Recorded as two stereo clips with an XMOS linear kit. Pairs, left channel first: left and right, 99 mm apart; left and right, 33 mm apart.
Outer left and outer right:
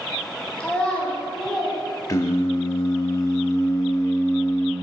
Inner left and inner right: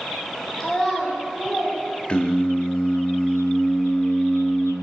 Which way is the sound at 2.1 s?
35° left (ahead or behind).